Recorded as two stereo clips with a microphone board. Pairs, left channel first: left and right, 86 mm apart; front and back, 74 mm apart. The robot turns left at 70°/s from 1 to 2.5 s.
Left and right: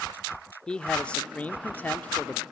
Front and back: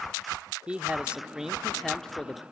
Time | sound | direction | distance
0.7 | a man speaking | 145° left | 0.8 m